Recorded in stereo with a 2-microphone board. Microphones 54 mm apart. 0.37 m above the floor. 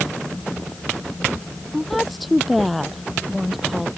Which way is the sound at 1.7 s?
Centre (ahead or behind).